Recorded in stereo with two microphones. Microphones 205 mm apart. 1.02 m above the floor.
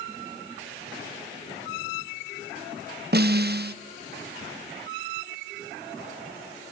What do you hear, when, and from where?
3.1 s a snare drum: 50° right (ahead or behind), 0.8 m